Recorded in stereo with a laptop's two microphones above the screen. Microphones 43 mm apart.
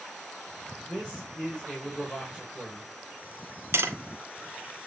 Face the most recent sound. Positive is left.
turn(degrees=-70)  # may be behind; listen again after turning